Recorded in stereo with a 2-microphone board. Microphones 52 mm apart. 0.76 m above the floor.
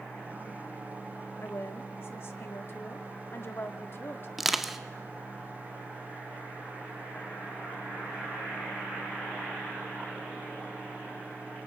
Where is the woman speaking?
50° left (ahead or behind), 1.8 m.